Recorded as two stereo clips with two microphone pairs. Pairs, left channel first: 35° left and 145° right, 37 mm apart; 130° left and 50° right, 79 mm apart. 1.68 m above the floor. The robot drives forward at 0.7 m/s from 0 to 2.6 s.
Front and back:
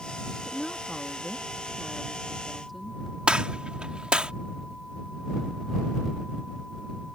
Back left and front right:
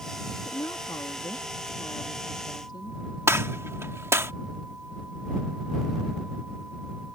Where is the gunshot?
95° right.